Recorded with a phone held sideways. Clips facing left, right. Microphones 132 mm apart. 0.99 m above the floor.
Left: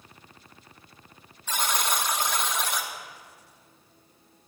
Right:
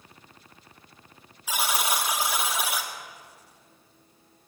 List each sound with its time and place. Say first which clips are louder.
1.5 s a buzzer: right 1 dB; 10° right (ahead or behind), 1.7 m